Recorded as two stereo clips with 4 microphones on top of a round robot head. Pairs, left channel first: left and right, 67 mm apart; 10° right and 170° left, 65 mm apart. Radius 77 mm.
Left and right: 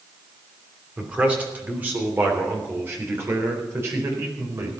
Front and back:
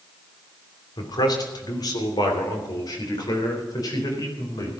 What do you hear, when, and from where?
1.0 s a man speaking: 20° right, 3 m; by 4.8 s 40° right, 4.5 m